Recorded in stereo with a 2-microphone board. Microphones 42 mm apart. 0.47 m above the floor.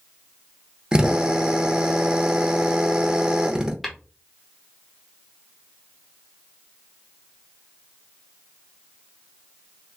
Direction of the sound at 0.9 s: 15° right (ahead or behind).